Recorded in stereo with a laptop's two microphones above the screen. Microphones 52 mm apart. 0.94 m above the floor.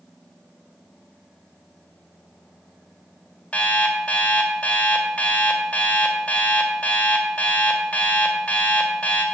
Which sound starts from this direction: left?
An alarm clock, at 3.5 s.